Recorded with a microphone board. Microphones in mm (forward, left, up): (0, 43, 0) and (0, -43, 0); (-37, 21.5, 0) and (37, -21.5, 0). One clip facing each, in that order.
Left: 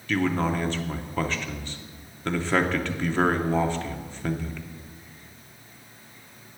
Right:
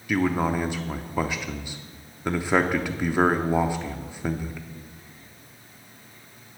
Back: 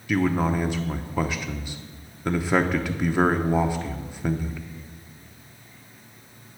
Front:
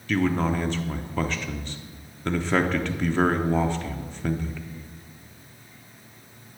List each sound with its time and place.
0.1 s a man speaking: 150° right, 0.6 m